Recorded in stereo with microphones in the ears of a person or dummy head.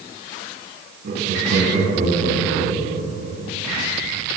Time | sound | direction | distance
1.0 | laughter | 60° right (ahead or behind) | 9.5 m